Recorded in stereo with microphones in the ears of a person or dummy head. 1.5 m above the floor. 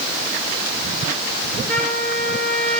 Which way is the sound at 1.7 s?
10° left (ahead or behind).